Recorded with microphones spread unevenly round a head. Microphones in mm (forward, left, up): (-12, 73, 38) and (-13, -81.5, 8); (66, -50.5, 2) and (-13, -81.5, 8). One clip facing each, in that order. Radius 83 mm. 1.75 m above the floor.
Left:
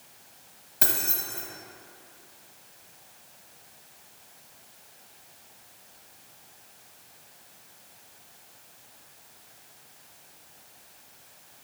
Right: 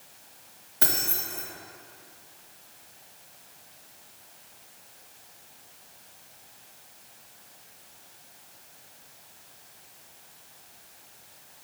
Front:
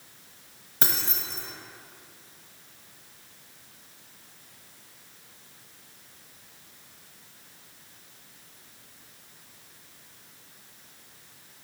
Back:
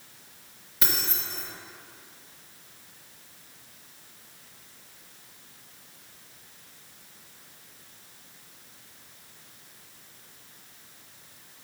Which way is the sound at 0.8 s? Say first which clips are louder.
Even, front 1 dB; 45° left.